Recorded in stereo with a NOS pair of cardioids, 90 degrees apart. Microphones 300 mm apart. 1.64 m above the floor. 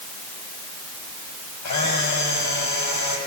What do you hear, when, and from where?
1.6 s a camera shutter: 70° left, 8 m